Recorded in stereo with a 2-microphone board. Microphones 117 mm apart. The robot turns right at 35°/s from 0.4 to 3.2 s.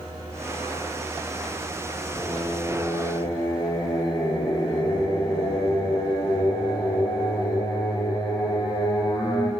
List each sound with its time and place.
2.1 s singing: 5° right, 4 m; by 9.5 s 35° left, 4 m